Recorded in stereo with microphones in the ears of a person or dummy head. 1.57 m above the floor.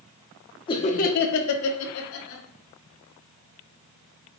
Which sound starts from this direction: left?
Laughter, at 0.7 s.